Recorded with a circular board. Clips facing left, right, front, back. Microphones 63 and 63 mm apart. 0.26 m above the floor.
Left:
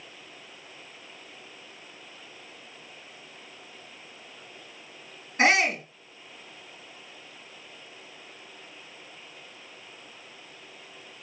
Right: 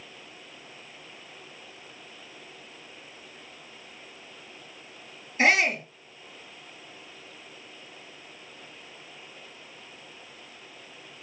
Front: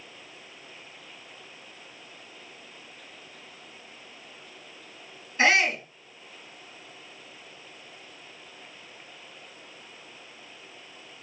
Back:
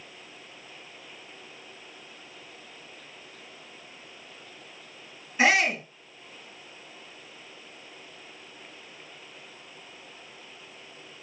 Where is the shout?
105° left, 4 m.